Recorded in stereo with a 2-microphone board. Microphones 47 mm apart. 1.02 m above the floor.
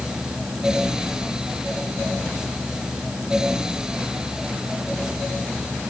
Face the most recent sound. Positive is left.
No sound to turn to.